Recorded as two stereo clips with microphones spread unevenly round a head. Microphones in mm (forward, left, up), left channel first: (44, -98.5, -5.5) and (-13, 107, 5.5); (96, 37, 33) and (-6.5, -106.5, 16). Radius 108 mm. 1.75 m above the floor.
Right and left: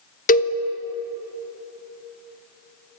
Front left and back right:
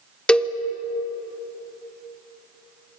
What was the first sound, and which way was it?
A cowbell, 25° right.